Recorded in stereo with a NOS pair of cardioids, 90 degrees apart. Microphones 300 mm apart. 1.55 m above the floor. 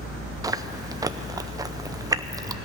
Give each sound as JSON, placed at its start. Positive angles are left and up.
{"t": 0.4, "sound": "chewing", "azimuth_deg": -10, "distance_m": 0.6}